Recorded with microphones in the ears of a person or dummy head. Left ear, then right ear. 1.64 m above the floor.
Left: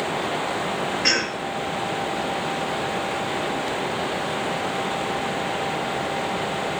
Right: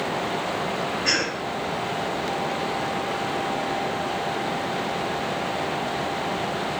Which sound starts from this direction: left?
A cough, at 1.0 s.